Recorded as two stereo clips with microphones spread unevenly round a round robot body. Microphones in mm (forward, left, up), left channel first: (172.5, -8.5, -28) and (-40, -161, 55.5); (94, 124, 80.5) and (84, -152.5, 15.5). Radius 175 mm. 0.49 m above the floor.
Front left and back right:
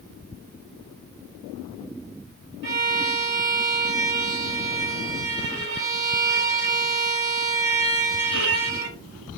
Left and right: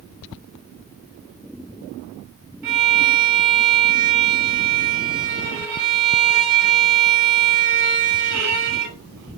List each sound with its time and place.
2.6 s a violin: 95° right, 0.9 m